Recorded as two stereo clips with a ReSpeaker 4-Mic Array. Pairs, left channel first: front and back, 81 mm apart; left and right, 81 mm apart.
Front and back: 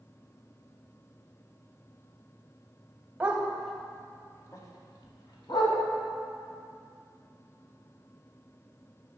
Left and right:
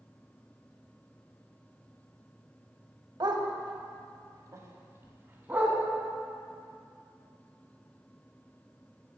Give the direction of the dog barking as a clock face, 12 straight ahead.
4 o'clock.